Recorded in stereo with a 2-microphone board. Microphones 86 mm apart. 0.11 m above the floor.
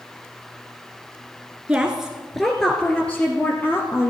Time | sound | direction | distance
1.7 | a woman speaking | 15° right (ahead or behind) | 1.5 m